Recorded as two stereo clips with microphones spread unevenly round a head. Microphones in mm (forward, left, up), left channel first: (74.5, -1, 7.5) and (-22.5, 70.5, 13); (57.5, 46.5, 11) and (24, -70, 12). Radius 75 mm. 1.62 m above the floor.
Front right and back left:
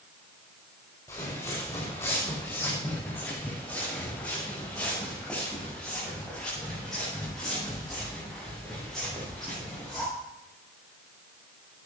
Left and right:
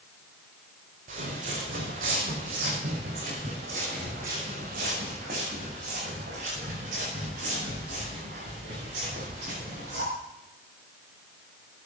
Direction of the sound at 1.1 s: 105° right.